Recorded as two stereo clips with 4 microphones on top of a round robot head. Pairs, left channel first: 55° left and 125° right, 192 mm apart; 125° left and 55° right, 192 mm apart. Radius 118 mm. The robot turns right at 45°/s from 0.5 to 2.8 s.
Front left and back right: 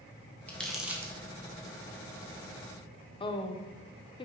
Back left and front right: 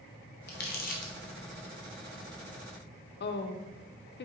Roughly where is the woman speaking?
Behind left.